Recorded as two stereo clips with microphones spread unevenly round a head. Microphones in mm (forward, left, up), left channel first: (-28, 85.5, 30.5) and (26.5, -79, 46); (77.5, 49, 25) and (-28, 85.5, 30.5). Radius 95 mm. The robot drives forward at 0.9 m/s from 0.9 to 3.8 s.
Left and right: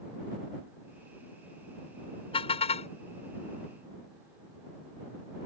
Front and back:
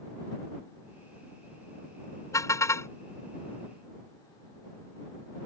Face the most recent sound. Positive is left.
turn(degrees=55)